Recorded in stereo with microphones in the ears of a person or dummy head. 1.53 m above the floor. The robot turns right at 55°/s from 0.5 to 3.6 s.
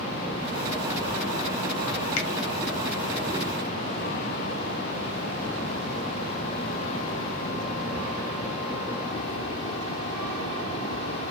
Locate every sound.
2.2 s a finger snap: 75° left (ahead or behind), 1.1 m; by 2.3 s 70° left (ahead or behind), 1.1 m